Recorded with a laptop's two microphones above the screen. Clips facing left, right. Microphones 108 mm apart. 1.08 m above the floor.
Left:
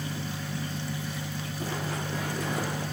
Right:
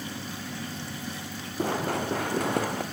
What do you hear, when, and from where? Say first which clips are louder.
1.6 s running footsteps: right 7 dB; 60° right (ahead or behind), 3 m; by 2.8 s 70° right (ahead or behind), 4.5 m